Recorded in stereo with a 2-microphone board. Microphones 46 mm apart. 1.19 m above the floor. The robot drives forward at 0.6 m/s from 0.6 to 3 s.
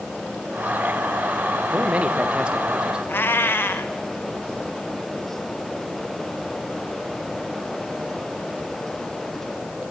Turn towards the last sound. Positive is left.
turn(degrees=50)  # may be behind; listen again after turning